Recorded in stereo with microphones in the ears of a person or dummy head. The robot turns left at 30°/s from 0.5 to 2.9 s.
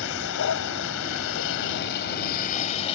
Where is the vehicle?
105° left; by 3.0 s 30° left.